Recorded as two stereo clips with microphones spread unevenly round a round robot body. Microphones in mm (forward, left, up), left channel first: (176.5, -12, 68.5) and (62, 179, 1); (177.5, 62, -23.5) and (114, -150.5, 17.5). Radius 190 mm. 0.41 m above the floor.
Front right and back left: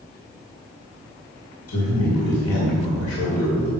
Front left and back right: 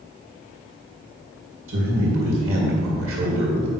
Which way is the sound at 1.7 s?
90° right.